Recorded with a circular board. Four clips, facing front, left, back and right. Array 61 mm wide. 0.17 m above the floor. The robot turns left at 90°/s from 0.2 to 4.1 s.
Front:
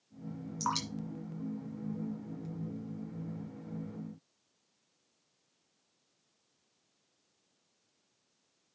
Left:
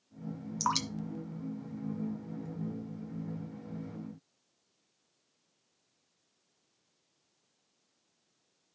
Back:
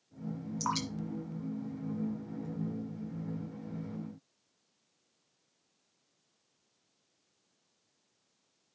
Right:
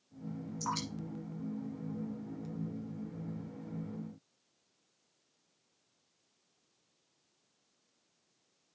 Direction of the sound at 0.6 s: 95° left.